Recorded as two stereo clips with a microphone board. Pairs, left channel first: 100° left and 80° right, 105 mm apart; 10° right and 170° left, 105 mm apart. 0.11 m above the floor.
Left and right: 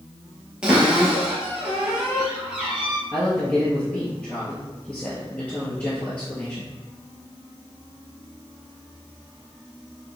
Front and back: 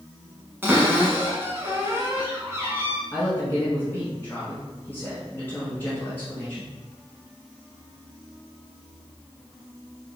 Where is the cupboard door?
150° right, 1.1 m.